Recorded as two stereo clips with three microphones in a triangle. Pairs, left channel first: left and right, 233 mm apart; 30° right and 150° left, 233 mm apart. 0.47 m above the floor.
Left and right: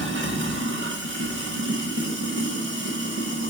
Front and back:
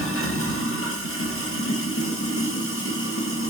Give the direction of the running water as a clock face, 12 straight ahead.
2 o'clock.